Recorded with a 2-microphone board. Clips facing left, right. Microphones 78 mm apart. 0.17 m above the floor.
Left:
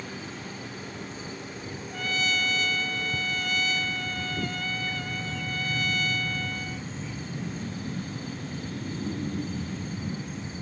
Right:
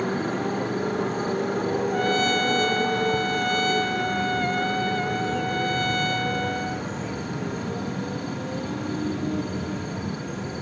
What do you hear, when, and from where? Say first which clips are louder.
0.0 s a motorcycle: right 13 dB; 55° right (ahead or behind); by 10.6 s 70° right (ahead or behind)
1.9 s a trumpet: right 4 dB; 45° right (ahead or behind)